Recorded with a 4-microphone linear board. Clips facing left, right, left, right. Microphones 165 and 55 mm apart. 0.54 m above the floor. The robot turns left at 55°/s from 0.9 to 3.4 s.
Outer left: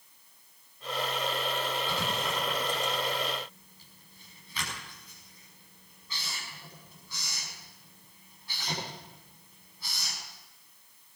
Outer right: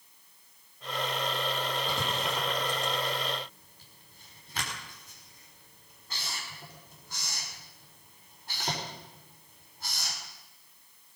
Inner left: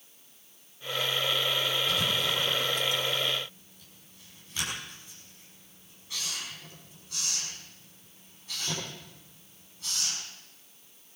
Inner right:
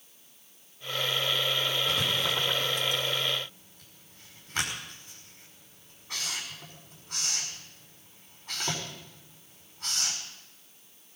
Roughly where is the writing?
Right.